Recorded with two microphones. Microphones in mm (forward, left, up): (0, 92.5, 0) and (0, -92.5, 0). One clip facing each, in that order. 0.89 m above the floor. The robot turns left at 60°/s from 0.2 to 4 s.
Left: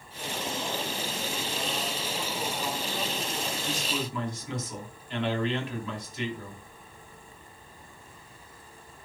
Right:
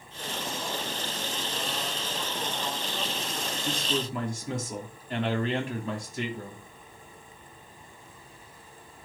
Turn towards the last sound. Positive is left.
turn(degrees=-45)  # may be behind; listen again after turning